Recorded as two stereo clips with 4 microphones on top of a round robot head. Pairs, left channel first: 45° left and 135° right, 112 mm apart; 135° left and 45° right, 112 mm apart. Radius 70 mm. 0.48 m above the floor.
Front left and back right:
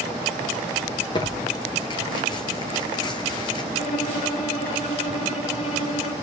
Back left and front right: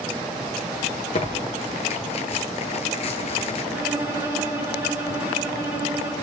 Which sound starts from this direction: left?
Tearing paper, at 1.1 s.